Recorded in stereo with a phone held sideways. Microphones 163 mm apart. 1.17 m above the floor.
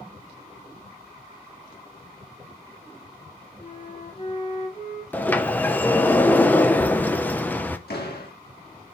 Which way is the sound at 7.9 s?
85° left.